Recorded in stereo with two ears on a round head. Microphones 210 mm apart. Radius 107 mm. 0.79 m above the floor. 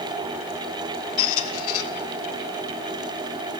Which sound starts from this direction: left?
A squeak, at 1.2 s.